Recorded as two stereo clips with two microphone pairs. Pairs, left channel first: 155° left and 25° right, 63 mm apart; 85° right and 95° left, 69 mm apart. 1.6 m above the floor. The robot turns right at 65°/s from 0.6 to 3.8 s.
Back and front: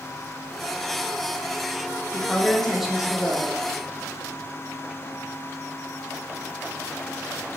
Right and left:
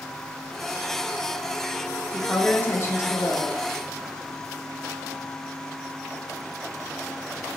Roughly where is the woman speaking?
Behind right.